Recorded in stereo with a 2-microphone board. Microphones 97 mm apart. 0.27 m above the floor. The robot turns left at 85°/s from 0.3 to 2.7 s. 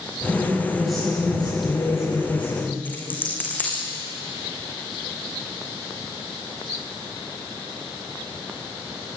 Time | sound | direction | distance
0.3 | a woman speaking | 130° right | 9 m
2.9 | a dropped coin | 20° left (ahead or behind) | 4.5 m